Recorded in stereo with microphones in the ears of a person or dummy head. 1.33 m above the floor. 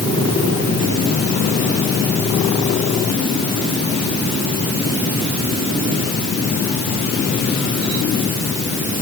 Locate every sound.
Only background noise.